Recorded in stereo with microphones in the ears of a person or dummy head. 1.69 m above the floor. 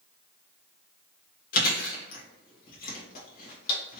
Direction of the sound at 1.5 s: 50° left (ahead or behind).